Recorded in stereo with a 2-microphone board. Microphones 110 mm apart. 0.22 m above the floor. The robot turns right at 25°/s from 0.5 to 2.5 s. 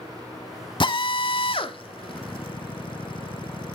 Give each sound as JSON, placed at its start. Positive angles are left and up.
{"t": 0.8, "sound": "a drill", "side_deg": 50, "distance_m": 0.8}